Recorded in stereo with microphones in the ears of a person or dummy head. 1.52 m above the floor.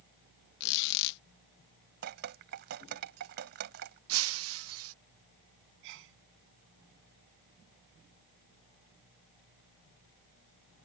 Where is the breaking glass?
85° right.